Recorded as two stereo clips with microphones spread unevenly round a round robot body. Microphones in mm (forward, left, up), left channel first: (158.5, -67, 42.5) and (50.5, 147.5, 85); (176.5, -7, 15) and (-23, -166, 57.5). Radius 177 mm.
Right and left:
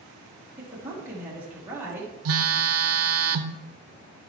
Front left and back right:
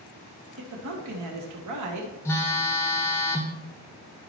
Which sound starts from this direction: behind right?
A man speaking, at 0.6 s.